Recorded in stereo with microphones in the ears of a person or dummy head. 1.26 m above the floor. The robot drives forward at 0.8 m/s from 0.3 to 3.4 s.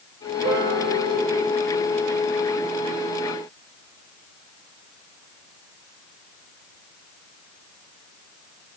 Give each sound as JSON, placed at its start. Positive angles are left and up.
{"t": 0.4, "sound": "a piano", "side_deg": -35, "distance_m": 6.5}